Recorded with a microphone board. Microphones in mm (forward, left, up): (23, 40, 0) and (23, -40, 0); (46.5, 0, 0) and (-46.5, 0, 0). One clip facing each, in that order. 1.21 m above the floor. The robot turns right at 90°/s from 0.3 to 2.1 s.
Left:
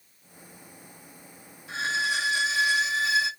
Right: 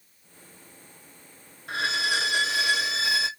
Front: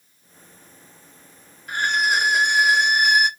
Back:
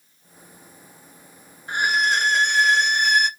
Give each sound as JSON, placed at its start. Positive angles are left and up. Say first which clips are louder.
{"t": 1.7, "sound": "a violin", "louder": "right 1 dB, even", "azimuth_deg": -120, "distance_m": 0.5}